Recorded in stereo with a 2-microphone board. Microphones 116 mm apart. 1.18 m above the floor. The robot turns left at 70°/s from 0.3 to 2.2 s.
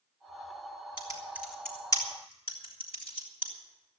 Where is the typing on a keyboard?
40° right (ahead or behind), 3.5 m; by 3.5 s 45° left (ahead or behind), 3.5 m.